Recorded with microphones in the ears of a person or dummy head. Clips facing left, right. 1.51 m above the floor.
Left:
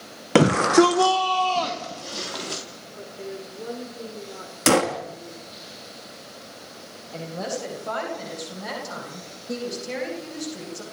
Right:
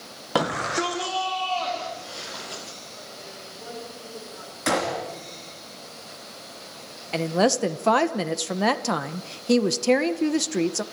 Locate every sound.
0.3 s a shout: 35° left (ahead or behind), 0.7 m; by 2.6 s 65° left (ahead or behind), 3 m
3.0 s a woman speaking: 60° left (ahead or behind), 6.5 m
4.7 s a gunshot: 50° left (ahead or behind), 1.4 m
7.1 s a woman speaking: 90° right, 1.3 m